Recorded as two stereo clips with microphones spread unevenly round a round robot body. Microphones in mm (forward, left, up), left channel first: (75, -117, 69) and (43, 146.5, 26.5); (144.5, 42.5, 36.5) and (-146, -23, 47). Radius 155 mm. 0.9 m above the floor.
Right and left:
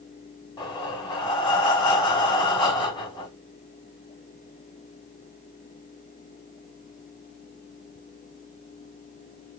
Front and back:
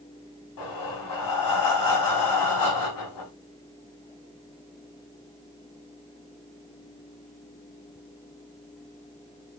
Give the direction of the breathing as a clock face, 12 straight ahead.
12 o'clock.